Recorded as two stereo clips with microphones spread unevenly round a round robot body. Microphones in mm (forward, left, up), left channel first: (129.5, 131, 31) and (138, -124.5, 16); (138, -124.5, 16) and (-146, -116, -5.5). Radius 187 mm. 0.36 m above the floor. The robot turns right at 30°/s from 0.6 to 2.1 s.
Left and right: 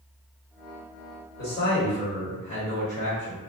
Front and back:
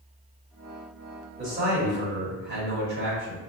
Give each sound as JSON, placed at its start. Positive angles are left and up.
{"t": 1.4, "sound": "a man speaking", "azimuth_deg": 130, "distance_m": 1.2}